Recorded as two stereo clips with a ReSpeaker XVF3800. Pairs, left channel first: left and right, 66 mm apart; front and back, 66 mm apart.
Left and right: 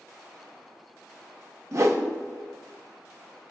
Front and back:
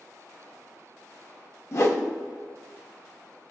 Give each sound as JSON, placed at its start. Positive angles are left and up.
{"t": 1.7, "sound": "a whoosh", "azimuth_deg": -45, "distance_m": 0.6}